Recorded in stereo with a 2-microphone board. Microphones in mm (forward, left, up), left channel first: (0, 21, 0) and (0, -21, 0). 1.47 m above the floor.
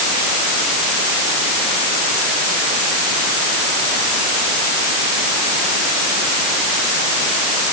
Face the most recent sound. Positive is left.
No sound to turn to.